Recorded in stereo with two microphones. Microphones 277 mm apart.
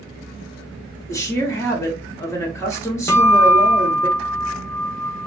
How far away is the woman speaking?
About 0.6 m.